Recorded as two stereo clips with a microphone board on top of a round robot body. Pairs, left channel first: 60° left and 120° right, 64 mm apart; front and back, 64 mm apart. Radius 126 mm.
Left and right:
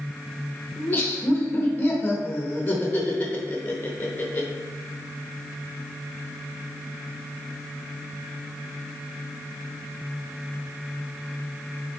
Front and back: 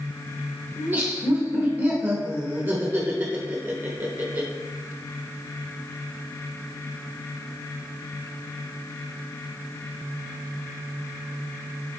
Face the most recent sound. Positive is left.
turn(degrees=125)